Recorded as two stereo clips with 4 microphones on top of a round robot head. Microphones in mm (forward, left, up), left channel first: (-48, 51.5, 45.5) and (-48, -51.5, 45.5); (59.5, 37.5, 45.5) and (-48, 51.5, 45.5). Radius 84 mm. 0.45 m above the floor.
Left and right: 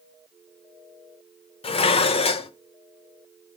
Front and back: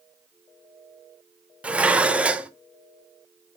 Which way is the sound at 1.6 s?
95° left.